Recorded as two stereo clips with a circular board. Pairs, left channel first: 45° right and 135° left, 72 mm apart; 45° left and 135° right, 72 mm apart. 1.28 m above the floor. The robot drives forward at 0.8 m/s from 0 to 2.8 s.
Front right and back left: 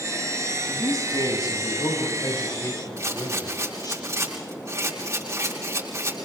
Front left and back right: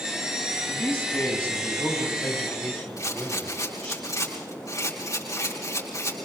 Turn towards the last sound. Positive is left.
turn(degrees=90)